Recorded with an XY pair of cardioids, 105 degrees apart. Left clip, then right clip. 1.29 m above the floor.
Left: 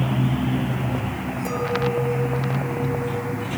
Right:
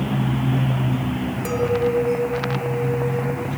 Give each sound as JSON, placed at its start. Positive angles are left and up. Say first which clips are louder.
{"t": 1.4, "sound": "a clink", "louder": "right 4 dB", "azimuth_deg": -40, "distance_m": 3.0}